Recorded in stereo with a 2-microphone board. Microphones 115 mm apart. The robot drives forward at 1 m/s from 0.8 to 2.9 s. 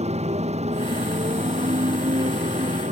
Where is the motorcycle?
75° right (ahead or behind); by 2.9 s 85° right.